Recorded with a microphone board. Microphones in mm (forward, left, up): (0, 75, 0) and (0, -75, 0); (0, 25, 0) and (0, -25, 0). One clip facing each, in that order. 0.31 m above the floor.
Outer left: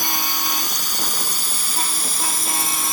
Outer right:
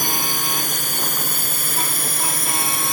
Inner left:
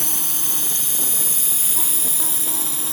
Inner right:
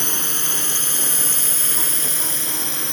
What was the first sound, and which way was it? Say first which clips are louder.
A drone: outer right 1 dB, inner right 4 dB; 50° right (ahead or behind).